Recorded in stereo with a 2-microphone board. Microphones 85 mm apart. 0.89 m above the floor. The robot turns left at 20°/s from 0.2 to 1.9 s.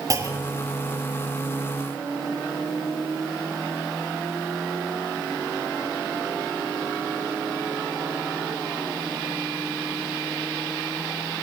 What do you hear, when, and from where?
0.1 s a clunk: 40° right (ahead or behind), 2.5 m; by 0.7 s 50° right (ahead or behind), 2.5 m